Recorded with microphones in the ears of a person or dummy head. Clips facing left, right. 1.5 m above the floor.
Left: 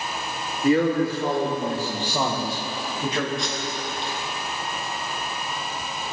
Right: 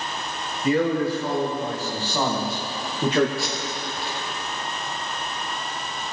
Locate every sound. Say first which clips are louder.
0.6 s a man speaking: left 2 dB; 55° left (ahead or behind), 3 m; by 3.3 s 65° right (ahead or behind), 1.7 m
3.4 s tape being pulled: even; 10° right (ahead or behind), 1.7 m